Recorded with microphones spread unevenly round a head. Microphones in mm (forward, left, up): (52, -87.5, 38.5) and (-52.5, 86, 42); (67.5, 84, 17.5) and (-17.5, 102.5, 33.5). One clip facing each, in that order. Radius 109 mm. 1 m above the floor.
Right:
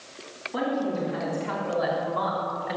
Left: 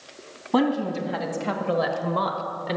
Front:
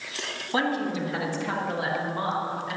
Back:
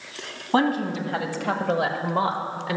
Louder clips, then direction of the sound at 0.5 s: Left 5 dB, back 4 dB; 115° left.